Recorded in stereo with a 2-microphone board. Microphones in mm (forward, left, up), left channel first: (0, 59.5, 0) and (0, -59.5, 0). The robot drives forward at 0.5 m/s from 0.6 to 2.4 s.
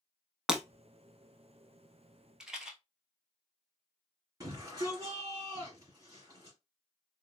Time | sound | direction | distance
0.5 | breaking glass | 5° right (ahead or behind) | 0.6 m
2.4 | a rattle | 5° right (ahead or behind) | 0.8 m
4.4 | a shout | 30° right (ahead or behind) | 1.6 m